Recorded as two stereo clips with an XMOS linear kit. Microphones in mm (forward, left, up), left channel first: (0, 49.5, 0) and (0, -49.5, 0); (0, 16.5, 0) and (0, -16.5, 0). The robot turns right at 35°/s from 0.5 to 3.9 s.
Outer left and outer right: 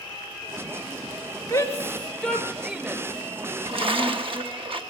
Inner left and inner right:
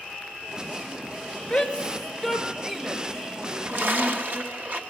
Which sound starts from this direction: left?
A shout, at 1.5 s.